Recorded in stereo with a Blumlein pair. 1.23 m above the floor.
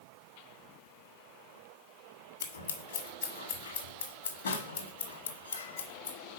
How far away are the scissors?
About 1.8 m.